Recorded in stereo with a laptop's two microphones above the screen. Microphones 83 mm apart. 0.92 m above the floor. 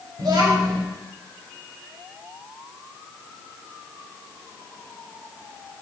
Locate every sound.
0.2 s a child speaking: 70° right (ahead or behind), 3.5 m